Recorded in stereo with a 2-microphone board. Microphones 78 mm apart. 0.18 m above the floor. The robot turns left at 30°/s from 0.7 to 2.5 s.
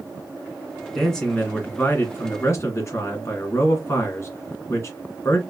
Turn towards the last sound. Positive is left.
turn(degrees=130)